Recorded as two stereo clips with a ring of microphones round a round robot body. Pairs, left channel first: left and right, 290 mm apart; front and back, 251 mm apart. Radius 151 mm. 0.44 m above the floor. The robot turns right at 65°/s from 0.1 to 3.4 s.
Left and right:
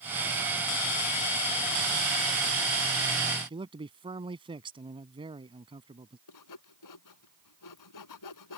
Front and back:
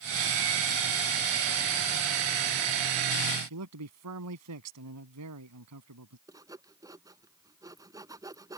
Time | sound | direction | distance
3.5 | a man speaking | 160° right | ?
6.3 | sawing | 105° left | ?